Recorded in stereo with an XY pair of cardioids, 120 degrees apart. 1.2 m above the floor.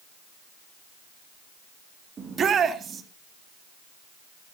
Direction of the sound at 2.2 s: 40° right.